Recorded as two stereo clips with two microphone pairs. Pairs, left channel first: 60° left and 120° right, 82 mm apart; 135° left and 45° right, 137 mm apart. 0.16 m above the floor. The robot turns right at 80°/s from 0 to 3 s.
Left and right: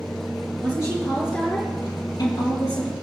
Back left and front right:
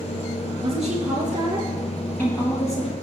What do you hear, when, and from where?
0.6 s a woman speaking: 65° right, 3 m; by 2.9 s 120° left, 3 m